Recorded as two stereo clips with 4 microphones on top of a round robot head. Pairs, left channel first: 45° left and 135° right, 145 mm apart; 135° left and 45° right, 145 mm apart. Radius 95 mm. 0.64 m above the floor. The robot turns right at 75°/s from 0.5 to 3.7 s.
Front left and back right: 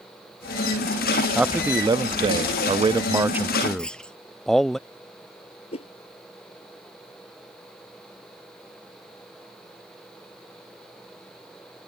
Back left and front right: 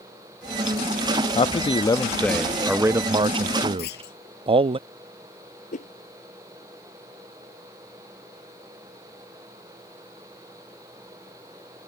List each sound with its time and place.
1.4 s a man speaking: 140° left; by 4.8 s 40° right
3.8 s a clunk: 130° left
5.7 s a whoosh: 95° left